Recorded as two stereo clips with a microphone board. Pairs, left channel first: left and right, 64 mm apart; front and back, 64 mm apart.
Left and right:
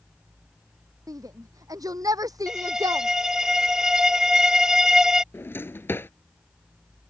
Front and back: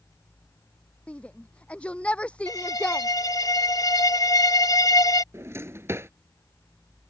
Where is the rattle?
No rattle in this recording.